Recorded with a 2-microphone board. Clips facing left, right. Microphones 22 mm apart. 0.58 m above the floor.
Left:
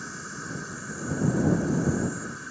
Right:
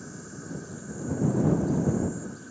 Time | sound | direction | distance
0.0 | an insect | 50° left (ahead or behind) | ?